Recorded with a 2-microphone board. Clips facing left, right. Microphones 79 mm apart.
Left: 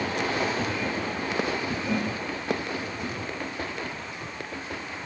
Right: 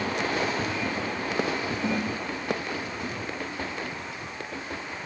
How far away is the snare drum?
About 2.5 m.